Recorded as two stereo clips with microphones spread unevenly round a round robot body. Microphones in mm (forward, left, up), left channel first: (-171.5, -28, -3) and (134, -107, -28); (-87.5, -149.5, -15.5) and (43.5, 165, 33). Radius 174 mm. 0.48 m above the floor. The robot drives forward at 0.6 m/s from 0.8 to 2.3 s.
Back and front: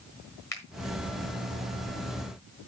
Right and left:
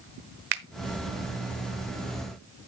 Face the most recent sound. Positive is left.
turn(degrees=120)